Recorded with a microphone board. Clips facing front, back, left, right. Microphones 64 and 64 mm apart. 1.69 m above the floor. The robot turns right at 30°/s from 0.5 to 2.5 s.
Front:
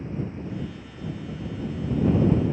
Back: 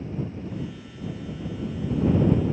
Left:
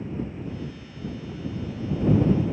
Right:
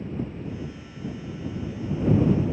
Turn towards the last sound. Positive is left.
No sound to turn to.